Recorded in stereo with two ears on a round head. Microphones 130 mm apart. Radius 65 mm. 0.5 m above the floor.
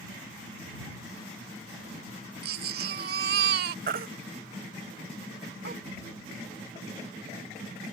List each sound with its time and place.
2.4 s a baby crying: 70° right (ahead or behind)
3.9 s a baby crying: 60° right (ahead or behind)